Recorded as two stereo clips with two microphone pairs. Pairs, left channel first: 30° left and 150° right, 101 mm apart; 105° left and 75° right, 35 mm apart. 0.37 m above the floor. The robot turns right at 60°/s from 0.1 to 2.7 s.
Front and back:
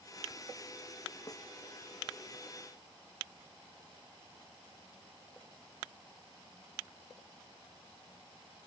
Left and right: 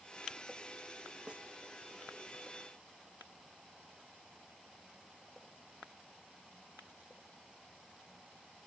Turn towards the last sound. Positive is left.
turn(degrees=65)